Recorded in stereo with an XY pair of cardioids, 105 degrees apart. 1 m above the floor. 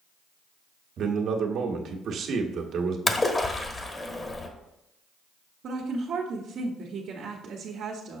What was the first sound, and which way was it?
A man speaking, 65° right.